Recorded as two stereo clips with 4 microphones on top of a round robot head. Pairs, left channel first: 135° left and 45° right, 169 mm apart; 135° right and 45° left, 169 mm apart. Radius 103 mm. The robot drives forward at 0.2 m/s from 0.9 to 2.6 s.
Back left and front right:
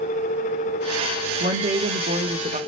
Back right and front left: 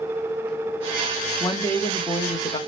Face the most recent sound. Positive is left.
turn(degrees=-75)